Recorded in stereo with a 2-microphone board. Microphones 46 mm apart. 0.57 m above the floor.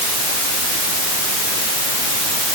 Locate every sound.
Only background noise.